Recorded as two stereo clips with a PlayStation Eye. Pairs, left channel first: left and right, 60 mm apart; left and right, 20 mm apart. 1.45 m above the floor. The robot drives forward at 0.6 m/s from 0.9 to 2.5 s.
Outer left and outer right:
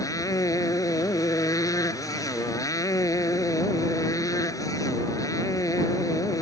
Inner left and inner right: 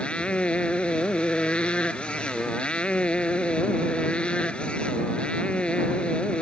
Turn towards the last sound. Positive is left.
turn(degrees=75)  # may be behind; listen again after turning